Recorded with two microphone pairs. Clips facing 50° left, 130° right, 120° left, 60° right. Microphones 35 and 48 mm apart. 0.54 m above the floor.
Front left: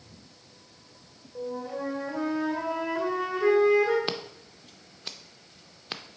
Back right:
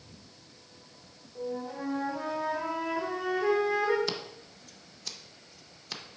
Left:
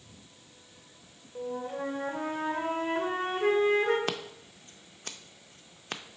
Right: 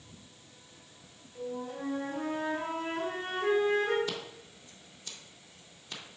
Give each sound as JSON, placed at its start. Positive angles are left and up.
{"t": 1.4, "sound": "a flute", "azimuth_deg": 90, "distance_m": 1.7}
{"t": 4.1, "sound": "scissors", "azimuth_deg": 100, "distance_m": 0.5}